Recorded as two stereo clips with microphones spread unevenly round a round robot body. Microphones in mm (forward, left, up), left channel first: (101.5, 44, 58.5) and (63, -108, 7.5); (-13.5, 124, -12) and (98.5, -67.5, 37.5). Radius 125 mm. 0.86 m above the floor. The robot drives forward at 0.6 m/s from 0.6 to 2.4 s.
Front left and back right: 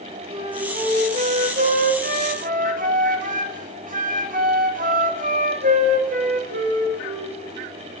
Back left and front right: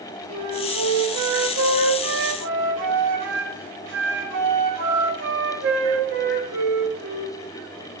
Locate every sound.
0.3 s a flute: 60° right, 1.5 m; by 7.4 s 110° right, 1.4 m